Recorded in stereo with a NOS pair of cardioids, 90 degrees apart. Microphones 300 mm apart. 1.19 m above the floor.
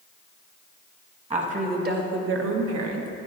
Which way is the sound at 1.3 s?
20° right.